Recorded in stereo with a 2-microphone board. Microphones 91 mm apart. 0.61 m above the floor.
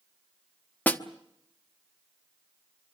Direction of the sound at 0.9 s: 15° left (ahead or behind).